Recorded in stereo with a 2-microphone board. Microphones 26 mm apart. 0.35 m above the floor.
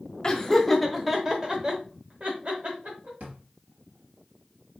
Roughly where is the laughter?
Left.